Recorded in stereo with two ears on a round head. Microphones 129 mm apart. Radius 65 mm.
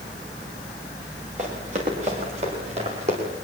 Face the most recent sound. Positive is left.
turn(degrees=-45)  # may be behind; listen again after turning